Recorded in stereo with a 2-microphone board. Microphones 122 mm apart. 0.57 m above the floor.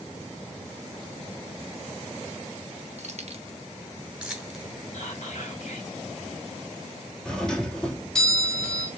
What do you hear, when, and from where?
3.0 s keys jangling: 60° right (ahead or behind), 0.8 m; by 4.7 s 5° left (ahead or behind), 1.4 m
4.9 s whispering: 65° left (ahead or behind), 2.5 m
7.2 s a doorbell: 5° left (ahead or behind), 1.1 m